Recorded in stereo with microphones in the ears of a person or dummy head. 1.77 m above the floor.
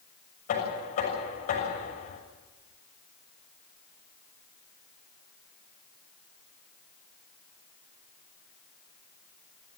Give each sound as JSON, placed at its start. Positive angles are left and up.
{"t": 0.5, "sound": "knocking", "side_deg": 45, "distance_m": 6.5}